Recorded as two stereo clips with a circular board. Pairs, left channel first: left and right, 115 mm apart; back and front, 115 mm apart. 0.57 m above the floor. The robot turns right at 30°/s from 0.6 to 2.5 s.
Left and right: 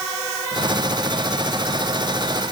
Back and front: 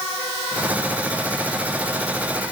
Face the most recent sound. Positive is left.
No sound to turn to.